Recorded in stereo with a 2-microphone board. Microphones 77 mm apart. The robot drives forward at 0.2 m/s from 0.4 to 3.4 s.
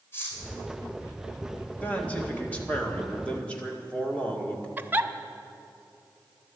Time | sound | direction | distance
0.1 | cutlery clinking | 30° left (ahead or behind) | 3.5 m
1.8 | a man speaking | 20° left (ahead or behind) | 1.7 m
4.8 | a giggle | 25° right (ahead or behind) | 0.6 m